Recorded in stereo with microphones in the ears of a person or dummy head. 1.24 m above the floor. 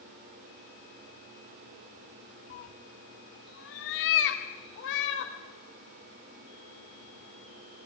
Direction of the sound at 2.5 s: 35° left (ahead or behind).